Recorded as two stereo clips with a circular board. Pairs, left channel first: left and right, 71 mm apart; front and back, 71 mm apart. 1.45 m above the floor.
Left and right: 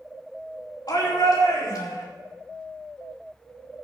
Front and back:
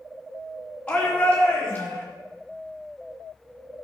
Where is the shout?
75° left, 3.5 m; by 2.0 s 70° left, 4.5 m.